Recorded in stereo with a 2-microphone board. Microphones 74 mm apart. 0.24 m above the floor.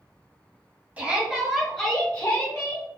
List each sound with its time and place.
1.0 s a shout: 20° right (ahead or behind), 1.1 m; by 2.9 s 40° left (ahead or behind), 1.1 m